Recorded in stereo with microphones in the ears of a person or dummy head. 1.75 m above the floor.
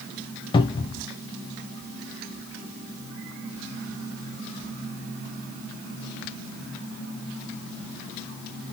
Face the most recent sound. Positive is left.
turn(degrees=25)  # may be behind; listen again after turning